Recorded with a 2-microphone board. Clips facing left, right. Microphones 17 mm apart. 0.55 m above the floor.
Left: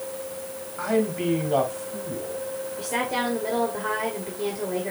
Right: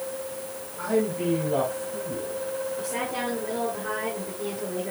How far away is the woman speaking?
About 2 m.